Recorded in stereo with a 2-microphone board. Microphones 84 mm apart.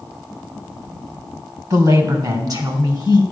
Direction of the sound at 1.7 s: 45° right (ahead or behind).